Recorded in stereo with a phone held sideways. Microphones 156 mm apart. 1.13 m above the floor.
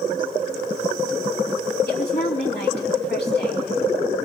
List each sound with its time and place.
1.9 s a woman speaking: 75° left (ahead or behind), 2.5 m